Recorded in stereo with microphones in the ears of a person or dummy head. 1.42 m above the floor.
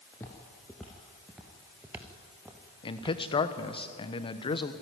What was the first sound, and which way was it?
Footsteps, 10° left (ahead or behind).